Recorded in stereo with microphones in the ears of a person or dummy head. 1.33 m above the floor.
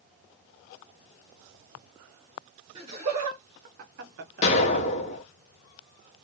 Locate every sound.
2.8 s laughter: 25° right (ahead or behind), 1.1 m; by 4.9 s 30° right (ahead or behind), 0.6 m
4.4 s an explosion: 40° left (ahead or behind), 0.9 m